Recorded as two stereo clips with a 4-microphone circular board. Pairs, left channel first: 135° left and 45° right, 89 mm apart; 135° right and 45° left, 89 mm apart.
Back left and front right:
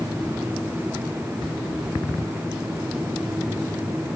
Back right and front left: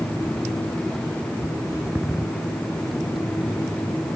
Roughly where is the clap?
No clap in this recording.